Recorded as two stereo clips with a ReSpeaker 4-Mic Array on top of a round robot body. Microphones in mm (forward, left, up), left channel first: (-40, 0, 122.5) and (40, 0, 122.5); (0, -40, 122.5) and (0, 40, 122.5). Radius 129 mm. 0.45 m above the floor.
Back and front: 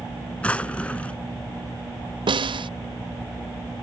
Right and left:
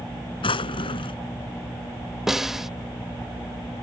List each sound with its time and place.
0.4 s a drawer: 105° right
2.3 s a snare drum: 5° left